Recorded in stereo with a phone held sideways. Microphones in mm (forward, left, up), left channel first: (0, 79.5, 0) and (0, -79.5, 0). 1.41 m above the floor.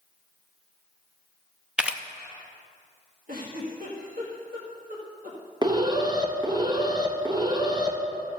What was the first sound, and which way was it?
A camera shutter, 5° right (ahead or behind).